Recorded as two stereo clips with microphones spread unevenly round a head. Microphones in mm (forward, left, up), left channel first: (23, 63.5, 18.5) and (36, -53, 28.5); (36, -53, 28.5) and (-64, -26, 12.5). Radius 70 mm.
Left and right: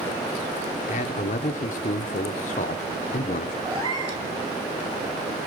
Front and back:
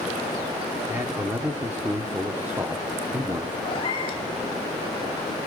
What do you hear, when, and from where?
0.9 s a man speaking: 85° left, 1.0 m
3.6 s a cat meowing: 40° right, 4 m